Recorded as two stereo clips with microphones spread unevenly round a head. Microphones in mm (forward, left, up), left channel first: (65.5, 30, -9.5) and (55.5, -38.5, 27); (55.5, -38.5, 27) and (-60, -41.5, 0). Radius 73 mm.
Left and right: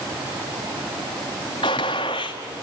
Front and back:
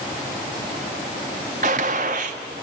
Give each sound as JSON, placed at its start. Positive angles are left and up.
{"t": 1.6, "sound": "a gunshot", "azimuth_deg": 145, "distance_m": 1.5}